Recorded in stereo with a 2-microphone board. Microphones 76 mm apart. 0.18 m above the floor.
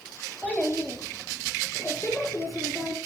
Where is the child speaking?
15° left (ahead or behind), 2.5 m; by 3.0 s 45° left (ahead or behind), 1.2 m.